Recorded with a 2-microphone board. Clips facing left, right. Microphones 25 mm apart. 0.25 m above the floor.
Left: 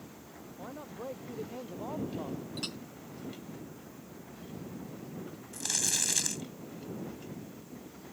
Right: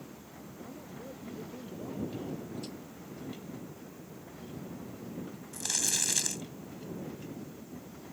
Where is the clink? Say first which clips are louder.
Left 3 dB; 80° left.